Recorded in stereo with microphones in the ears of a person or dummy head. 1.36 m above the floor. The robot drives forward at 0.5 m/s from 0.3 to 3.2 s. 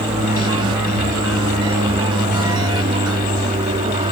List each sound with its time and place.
0.0 s an aircraft: 20° right (ahead or behind); by 4.1 s 25° right (ahead or behind)